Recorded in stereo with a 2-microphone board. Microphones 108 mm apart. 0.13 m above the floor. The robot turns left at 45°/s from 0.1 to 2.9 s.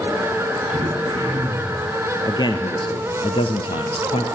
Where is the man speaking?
35° left (ahead or behind), 2 m; by 4.2 s 55° left (ahead or behind), 2 m.